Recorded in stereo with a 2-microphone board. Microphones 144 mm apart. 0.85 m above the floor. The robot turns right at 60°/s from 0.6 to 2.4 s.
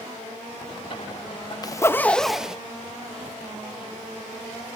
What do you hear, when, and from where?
1.6 s a zipper: 140° left, 0.6 m; by 2.6 s 175° right, 0.6 m